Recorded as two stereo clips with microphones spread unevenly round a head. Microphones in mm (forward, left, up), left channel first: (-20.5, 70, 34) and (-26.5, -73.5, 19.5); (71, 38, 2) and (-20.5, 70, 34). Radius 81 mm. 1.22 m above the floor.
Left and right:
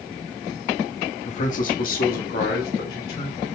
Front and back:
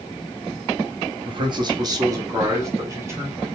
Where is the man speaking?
120° left, 1.0 m; by 3.5 s 90° left, 2.5 m.